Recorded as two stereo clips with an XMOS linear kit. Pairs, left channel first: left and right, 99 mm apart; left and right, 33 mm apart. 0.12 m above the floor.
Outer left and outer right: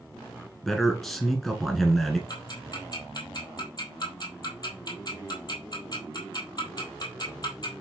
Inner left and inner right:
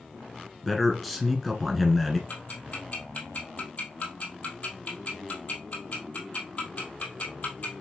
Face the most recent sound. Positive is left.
turn(degrees=45)  # may be behind; listen again after turning